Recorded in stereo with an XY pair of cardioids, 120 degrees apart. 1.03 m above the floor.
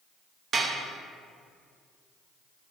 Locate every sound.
0.5 s dishes clattering: 40° right, 0.7 m